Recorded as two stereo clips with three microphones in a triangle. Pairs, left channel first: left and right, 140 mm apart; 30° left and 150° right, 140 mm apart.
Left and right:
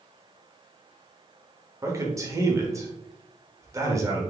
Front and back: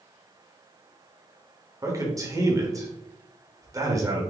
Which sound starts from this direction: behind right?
A man speaking, at 1.8 s.